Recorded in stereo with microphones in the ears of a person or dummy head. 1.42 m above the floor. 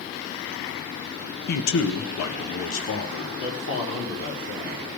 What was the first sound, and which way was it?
A man speaking, 50° left (ahead or behind).